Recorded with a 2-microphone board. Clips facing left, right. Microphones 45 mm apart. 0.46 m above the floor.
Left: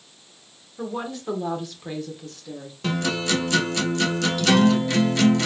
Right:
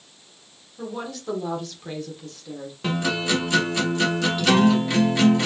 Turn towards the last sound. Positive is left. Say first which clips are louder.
# even
turn(degrees=-10)  # may be behind; listen again after turning